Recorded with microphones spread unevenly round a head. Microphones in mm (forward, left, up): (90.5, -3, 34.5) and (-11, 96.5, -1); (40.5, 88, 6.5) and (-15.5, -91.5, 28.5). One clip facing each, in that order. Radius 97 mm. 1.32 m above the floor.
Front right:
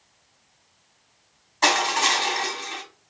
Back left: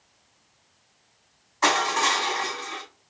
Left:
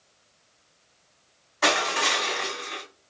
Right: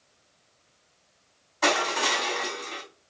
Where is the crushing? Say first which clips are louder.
Front right 1 dB, even; 10° right, 1.7 m.